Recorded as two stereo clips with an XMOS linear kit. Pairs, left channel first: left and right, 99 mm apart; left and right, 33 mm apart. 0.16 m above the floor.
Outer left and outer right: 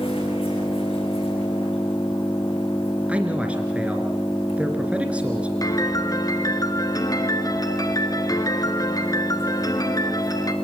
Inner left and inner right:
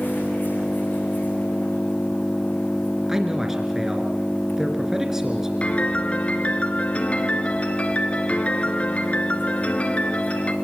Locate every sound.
0.0 s an engine running: 65° left (ahead or behind), 8.5 m
3.1 s a man speaking: 15° right (ahead or behind), 2.5 m
5.6 s a piano: 40° left (ahead or behind), 1.7 m